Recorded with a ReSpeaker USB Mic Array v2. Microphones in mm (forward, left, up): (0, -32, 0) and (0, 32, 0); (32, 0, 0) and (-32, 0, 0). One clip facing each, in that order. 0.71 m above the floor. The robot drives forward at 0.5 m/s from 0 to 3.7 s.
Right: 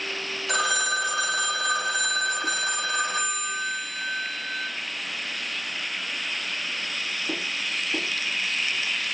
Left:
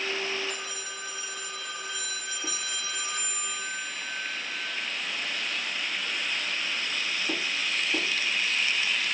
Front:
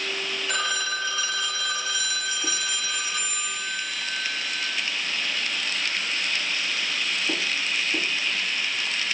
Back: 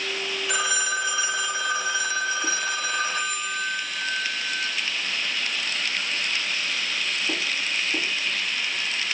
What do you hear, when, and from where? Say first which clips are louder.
0.5 s a phone ringing: right 13 dB, back 2 dB; 95° right, 2 m; by 4.7 s 135° right, 2.5 m